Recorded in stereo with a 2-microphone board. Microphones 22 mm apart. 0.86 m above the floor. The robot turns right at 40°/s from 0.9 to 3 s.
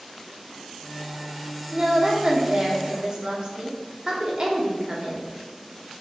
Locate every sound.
1.7 s a woman speaking: 130° right, 0.9 m; by 5.3 s 75° right, 0.9 m